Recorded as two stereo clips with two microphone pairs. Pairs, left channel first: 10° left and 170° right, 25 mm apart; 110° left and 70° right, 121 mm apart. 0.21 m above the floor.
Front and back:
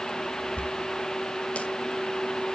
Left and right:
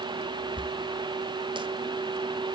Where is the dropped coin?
25° right, 2 m.